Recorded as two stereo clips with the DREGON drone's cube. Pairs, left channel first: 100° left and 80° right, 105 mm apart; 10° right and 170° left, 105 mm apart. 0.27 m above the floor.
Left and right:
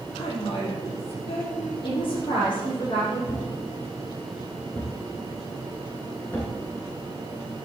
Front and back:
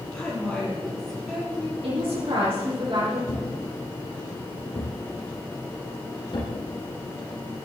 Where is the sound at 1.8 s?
135° left, 7.5 m.